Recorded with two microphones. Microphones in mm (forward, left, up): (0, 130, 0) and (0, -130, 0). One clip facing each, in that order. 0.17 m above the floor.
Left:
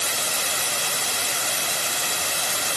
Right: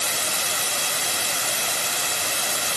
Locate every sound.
Only background noise.